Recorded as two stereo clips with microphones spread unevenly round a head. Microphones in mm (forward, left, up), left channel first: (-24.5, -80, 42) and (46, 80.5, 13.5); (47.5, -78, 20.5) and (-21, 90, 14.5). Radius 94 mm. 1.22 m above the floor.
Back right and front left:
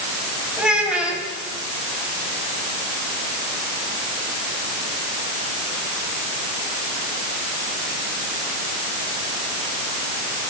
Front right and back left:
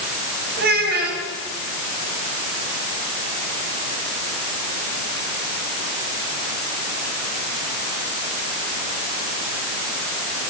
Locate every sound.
0.6 s a child speaking: 155° left, 5 m